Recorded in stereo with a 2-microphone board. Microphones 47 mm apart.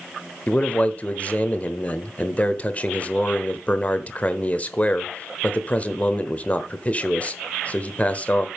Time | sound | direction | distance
0.5 | a man speaking | 30° left (ahead or behind) | 1.0 m